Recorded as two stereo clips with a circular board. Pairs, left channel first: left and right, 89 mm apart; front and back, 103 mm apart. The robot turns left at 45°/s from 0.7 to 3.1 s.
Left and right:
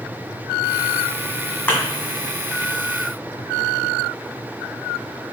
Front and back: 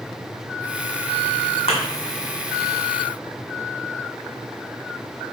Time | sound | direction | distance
1.7 | a thud | 15° left | 1.7 m